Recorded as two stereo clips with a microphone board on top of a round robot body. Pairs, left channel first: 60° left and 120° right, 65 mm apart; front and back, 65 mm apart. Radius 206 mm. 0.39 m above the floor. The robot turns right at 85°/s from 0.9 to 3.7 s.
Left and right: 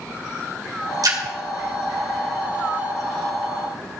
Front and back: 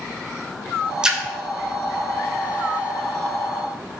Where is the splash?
105° right, 2.5 m; by 1.2 s 90° right, 2.5 m.